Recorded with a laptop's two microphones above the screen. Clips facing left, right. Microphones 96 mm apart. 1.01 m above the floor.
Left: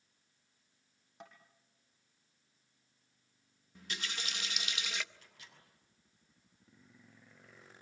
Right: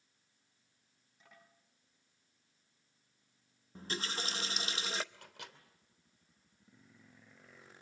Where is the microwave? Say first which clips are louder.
Right 8 dB; 75° right (ahead or behind), 2.5 m.